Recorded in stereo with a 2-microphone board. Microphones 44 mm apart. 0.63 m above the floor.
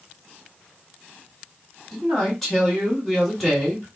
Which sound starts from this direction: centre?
A man speaking, at 1.9 s.